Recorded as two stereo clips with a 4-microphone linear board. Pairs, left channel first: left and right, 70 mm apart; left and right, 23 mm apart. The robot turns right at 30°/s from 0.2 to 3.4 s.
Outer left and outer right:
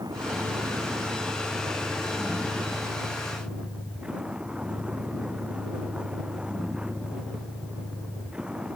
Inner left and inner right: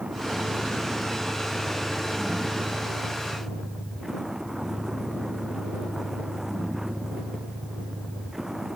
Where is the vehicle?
110° right; by 8.8 s 15° right.